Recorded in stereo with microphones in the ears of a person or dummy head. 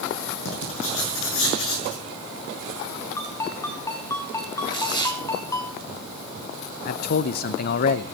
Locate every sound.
0.5 s writing: 80° left, 6 m
3.2 s a ringtone: 10° left (ahead or behind), 3.5 m
4.7 s tearing paper: 30° left (ahead or behind), 4 m
6.8 s a man speaking: 40° left (ahead or behind), 0.6 m